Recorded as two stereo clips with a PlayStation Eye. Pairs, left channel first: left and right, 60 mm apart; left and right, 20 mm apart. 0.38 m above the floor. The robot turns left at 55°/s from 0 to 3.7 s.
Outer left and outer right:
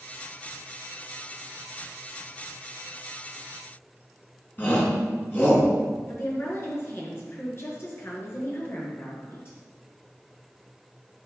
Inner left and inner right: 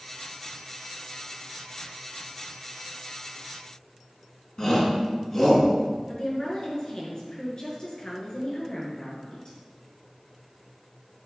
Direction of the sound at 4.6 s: 30° left (ahead or behind).